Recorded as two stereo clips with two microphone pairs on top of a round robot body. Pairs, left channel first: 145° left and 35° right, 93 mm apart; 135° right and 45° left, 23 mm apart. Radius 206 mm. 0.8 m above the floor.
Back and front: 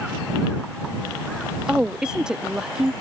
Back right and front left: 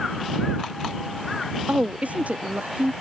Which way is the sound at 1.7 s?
50° left.